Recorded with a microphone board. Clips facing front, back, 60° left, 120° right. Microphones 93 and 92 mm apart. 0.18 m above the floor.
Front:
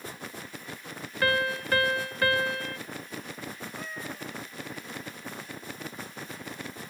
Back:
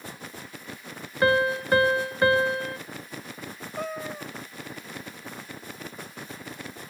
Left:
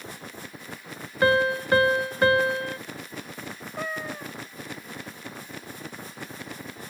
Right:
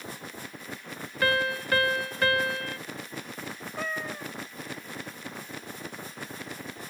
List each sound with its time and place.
1.2 s a piano: 120° left
3.8 s a cat meowing: 140° left